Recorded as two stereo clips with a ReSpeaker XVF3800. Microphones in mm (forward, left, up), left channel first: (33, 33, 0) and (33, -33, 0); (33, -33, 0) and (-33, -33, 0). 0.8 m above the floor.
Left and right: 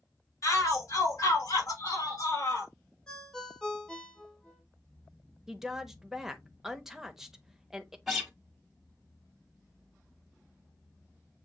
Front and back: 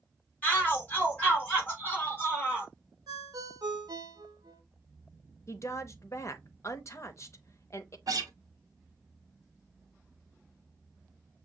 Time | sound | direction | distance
0.4 | a shout | 65° left | 3 m
3.1 | a ringtone | 170° left | 1.1 m
5.5 | a woman speaking | 10° right | 0.7 m
8.1 | a guitar | 175° right | 1.1 m